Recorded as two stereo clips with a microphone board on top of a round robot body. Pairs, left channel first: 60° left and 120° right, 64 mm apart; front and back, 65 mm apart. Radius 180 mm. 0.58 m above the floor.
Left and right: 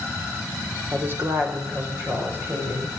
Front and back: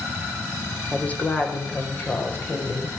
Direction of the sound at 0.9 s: 65° right.